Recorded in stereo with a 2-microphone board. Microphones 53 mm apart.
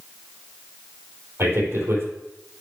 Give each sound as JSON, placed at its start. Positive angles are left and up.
{"t": 1.4, "sound": "a man speaking", "side_deg": -50, "distance_m": 4.0}